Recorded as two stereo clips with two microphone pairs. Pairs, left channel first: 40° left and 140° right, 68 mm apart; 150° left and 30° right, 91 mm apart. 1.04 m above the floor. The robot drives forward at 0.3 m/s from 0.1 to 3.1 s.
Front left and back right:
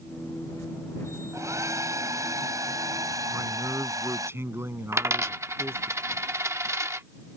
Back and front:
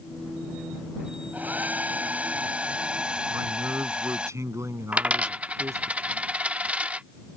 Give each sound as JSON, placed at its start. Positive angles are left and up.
{"t": 1.3, "sound": "a hair dryer", "azimuth_deg": -100}
{"t": 3.3, "sound": "a man speaking", "azimuth_deg": -90}
{"t": 4.9, "sound": "a dropped coin", "azimuth_deg": -105}